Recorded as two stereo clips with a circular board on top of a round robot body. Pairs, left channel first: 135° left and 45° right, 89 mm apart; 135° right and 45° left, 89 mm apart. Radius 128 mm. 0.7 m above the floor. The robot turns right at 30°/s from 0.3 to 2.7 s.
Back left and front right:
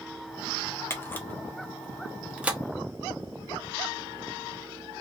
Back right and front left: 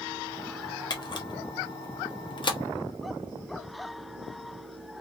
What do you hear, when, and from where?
0.9 s a camera shutter: 165° right, 0.8 m; by 2.6 s 115° right, 0.8 m